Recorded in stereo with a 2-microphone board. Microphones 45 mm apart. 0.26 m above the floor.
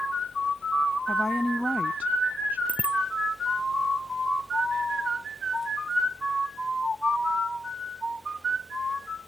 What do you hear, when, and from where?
1.1 s a woman speaking: 15° left (ahead or behind); by 2.6 s 40° right (ahead or behind)
2.7 s a bicycle bell: 25° right (ahead or behind)